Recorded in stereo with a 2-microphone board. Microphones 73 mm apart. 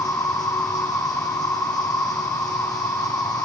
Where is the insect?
55° left (ahead or behind), 2.5 m.